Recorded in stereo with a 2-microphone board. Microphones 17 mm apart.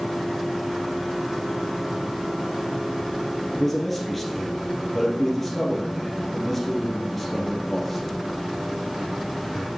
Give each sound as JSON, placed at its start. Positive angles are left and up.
{"t": 3.5, "sound": "a man speaking", "side_deg": 10, "distance_m": 2.5}